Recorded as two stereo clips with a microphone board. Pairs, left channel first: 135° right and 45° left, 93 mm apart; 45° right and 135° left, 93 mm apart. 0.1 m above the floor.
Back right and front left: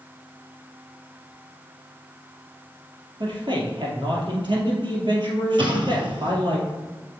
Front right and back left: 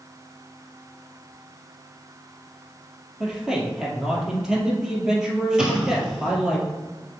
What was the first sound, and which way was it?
A man speaking, 55° left.